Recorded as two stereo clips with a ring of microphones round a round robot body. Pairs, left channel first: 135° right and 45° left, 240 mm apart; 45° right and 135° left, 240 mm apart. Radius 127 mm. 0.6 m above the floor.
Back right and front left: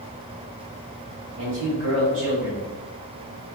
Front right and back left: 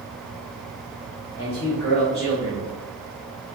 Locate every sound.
1.4 s a man speaking: 20° left, 1.7 m